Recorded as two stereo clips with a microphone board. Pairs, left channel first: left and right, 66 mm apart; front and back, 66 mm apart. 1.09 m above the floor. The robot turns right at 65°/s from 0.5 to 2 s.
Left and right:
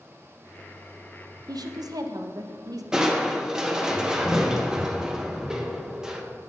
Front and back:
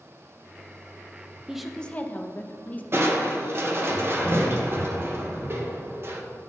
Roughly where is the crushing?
Behind.